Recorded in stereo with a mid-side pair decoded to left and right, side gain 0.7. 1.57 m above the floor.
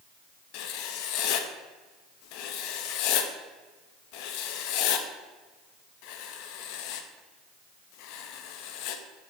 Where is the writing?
70° left, 0.8 m.